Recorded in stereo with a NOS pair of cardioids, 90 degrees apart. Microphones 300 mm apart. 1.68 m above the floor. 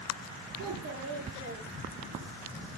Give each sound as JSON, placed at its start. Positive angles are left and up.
{"t": 0.6, "sound": "a child speaking", "azimuth_deg": -55, "distance_m": 4.0}